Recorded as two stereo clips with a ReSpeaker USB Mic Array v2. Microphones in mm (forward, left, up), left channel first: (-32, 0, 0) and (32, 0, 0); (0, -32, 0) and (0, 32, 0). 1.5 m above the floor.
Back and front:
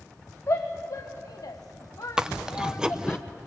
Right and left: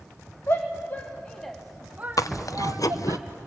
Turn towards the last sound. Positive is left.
turn(degrees=-75)